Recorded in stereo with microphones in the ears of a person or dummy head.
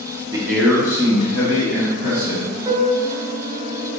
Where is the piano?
30° right (ahead or behind), 0.8 m.